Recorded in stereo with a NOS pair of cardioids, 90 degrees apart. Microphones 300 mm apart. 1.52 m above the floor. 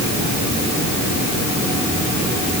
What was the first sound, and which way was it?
Only background noise.